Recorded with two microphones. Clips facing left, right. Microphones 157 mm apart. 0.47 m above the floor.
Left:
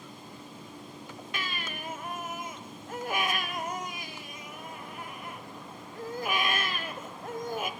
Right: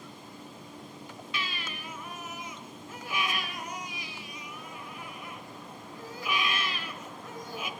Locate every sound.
1.3 s a baby crying: 50° left (ahead or behind), 1.8 m